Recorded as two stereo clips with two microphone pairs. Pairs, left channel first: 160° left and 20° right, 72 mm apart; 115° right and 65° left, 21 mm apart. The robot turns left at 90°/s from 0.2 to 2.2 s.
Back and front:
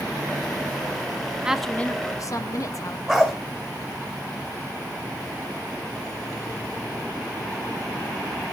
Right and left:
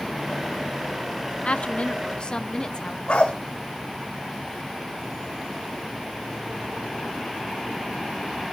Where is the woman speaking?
90° right, 0.8 m; by 3.0 s 160° right, 0.8 m.